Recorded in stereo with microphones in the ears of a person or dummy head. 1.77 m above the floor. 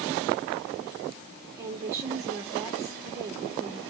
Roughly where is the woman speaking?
Centre.